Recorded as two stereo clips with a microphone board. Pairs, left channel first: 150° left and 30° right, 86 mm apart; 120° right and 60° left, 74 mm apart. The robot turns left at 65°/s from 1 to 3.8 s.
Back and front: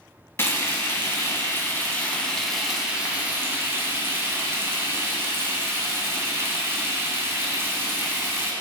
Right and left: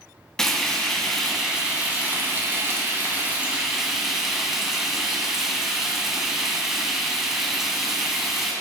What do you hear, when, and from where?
0.4 s frying: 165° left, 1.5 m; by 8.5 s 15° right, 1.5 m